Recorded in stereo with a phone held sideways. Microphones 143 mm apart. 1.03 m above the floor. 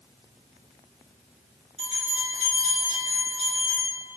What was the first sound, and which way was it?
A bell, 55° right (ahead or behind).